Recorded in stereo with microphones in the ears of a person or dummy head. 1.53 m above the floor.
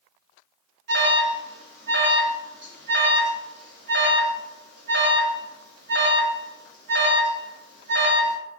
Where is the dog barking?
I don't hear a dog barking.